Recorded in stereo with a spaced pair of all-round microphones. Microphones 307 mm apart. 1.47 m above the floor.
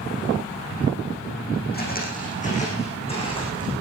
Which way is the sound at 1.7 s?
30° left (ahead or behind).